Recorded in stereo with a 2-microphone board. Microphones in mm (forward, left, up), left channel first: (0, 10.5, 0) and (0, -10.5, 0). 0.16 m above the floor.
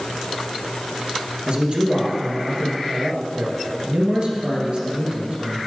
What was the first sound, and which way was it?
A man speaking, 50° right (ahead or behind).